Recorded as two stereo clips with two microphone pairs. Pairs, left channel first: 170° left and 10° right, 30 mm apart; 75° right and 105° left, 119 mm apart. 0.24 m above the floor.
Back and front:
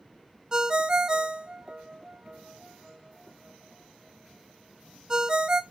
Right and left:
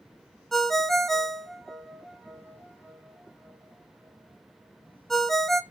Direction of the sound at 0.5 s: 10° left.